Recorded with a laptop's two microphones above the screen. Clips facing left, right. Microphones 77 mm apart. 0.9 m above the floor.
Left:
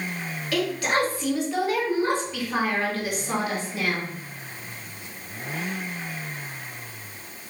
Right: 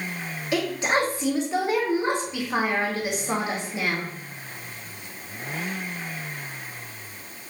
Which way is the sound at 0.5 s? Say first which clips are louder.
Even; 25° right (ahead or behind).